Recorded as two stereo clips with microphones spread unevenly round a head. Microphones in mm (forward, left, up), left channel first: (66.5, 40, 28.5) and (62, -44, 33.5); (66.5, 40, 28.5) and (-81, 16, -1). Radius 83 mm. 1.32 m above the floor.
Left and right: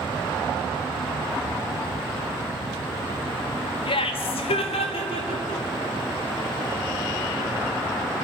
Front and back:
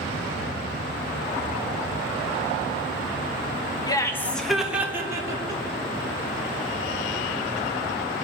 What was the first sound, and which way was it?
Laughter, 75° left.